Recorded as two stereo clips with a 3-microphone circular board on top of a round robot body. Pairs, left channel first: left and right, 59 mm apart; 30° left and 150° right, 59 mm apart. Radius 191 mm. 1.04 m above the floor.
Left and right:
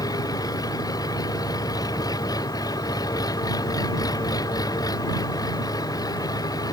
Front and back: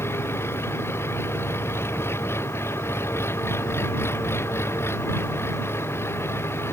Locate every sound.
0.0 s an engine running: 80° left